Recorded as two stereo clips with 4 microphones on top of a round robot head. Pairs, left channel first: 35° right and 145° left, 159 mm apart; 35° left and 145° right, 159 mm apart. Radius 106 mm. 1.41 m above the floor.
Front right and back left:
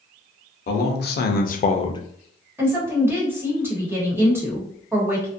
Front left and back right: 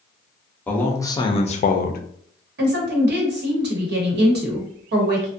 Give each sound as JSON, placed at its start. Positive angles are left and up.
{"t": 0.7, "sound": "a man speaking", "azimuth_deg": -45, "distance_m": 0.8}
{"t": 2.6, "sound": "a woman speaking", "azimuth_deg": -140, "distance_m": 1.1}